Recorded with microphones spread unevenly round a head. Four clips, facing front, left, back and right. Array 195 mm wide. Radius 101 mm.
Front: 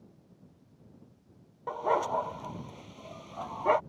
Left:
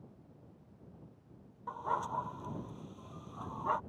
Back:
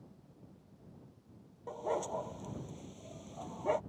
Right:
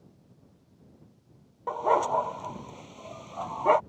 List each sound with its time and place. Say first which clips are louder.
1.7 s a dog barking: right 12 dB, front 8 dB; 65° right